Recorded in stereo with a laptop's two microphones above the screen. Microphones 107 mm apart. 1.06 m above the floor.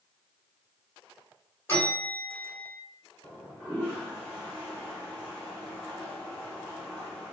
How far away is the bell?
About 1.7 m.